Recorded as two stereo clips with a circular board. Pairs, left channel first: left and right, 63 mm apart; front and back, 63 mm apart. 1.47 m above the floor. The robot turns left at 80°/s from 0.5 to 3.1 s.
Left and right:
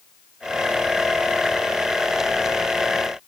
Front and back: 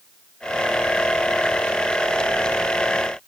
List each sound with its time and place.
Only background noise.